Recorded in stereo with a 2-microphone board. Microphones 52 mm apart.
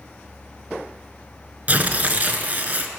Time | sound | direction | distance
1.7 | tearing paper | 35° right (ahead or behind) | 0.5 m